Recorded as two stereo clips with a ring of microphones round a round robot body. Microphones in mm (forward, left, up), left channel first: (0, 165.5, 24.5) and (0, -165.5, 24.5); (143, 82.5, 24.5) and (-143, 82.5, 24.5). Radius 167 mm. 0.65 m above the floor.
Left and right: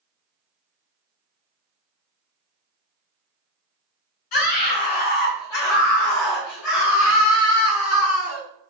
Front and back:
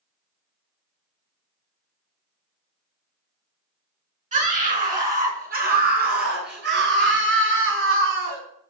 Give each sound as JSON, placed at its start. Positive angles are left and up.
{"t": 4.3, "sound": "a scream", "azimuth_deg": 115, "distance_m": 6.5}